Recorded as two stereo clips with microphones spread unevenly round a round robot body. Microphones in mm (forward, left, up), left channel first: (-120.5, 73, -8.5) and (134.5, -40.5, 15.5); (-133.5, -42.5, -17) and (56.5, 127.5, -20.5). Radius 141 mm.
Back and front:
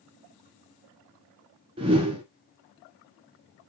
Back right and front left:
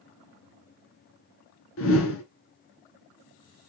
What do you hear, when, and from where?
1.8 s a whoosh: 95° right, 0.9 m